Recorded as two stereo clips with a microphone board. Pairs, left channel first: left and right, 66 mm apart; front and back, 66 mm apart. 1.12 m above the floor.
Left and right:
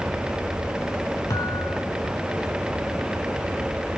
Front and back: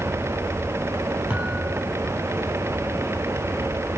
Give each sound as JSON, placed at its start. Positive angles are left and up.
{"t": 1.3, "sound": "a thud", "azimuth_deg": 110, "distance_m": 7.0}